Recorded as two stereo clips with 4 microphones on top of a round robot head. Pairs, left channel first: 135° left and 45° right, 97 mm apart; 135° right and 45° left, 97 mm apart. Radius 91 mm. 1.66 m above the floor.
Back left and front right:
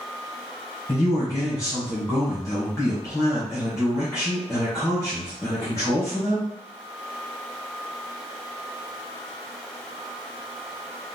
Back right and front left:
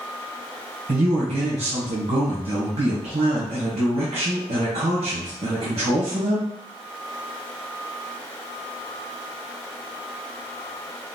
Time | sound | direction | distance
0.9 | a man speaking | 65° left | 1.3 m